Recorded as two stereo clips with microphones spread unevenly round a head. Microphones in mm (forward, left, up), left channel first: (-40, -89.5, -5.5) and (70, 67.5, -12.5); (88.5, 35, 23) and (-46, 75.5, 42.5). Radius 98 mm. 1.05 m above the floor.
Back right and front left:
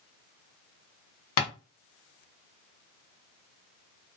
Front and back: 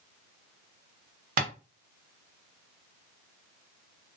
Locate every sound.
1.4 s tapping: 165° right, 1.5 m